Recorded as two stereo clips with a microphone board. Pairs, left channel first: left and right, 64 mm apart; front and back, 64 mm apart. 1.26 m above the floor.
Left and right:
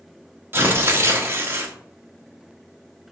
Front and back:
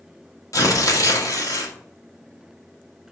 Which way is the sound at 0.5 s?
35° right.